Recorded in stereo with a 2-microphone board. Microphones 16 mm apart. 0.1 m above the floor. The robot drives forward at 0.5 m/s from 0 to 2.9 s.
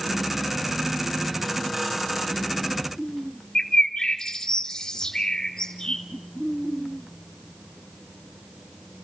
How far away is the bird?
About 3 m.